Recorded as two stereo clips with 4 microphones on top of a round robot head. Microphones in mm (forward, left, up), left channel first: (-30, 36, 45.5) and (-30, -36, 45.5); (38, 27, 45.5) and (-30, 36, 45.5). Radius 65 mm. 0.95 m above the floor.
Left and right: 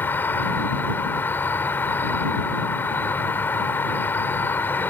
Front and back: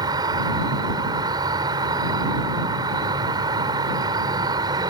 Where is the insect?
155° left.